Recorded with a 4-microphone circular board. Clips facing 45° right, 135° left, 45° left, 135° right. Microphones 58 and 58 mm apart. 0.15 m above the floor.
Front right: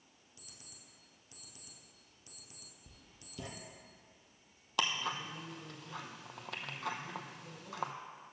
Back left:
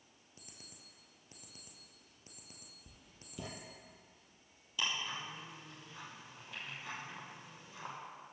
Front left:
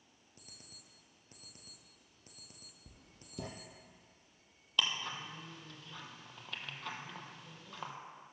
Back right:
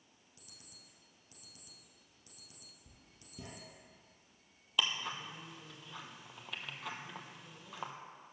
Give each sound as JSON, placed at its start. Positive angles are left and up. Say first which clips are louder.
{"t": 0.4, "sound": "an alarm clock", "louder": "back left 2 dB, front left 2 dB", "azimuth_deg": 85, "distance_m": 1.7}
{"t": 2.9, "sound": "writing", "louder": "even, front left 2 dB", "azimuth_deg": 55, "distance_m": 1.1}
{"t": 4.8, "sound": "ticking", "louder": "front right 4 dB, even", "azimuth_deg": -55, "distance_m": 0.9}